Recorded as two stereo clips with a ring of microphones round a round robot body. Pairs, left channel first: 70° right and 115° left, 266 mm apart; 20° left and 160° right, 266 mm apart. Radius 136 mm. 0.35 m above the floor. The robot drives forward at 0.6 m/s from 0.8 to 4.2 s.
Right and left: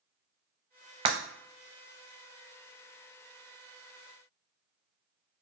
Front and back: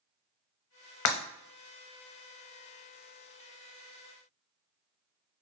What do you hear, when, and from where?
1.1 s breaking glass: 45° left, 0.8 m; by 1.2 s 50° left, 0.8 m